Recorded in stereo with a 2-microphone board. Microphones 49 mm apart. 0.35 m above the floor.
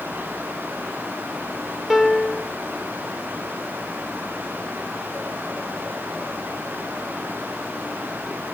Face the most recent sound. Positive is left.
turn(degrees=-5)  # may be behind; listen again after turning